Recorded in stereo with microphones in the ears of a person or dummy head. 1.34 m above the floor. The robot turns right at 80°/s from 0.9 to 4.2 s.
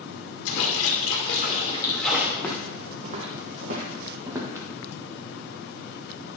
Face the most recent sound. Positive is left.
turn(degrees=-20)  # may be behind; listen again after turning